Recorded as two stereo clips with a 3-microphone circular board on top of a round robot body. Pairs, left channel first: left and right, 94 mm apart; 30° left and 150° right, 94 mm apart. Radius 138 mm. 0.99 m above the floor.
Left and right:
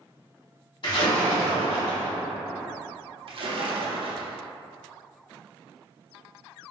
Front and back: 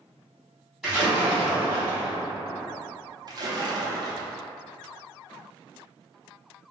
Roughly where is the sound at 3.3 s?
Right.